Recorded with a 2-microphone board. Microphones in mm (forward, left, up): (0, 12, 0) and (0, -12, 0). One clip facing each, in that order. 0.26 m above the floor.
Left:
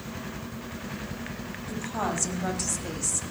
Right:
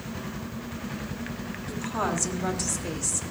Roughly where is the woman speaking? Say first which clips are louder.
Right 2 dB; centre.